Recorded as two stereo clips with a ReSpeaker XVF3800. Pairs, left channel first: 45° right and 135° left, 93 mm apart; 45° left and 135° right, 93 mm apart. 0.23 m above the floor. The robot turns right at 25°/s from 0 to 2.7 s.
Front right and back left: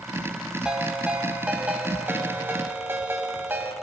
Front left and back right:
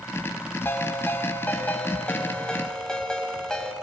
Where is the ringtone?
65° left, 1.0 m; by 3.7 s 115° left, 1.0 m.